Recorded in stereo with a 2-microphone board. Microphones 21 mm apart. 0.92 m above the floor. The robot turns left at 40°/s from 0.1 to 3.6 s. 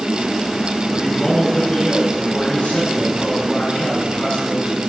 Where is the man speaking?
145° left, 7 m; by 4.8 s 40° left, 7 m.